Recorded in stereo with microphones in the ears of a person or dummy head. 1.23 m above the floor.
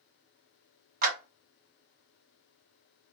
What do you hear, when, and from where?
1.0 s a clap: 50° right (ahead or behind), 1.6 m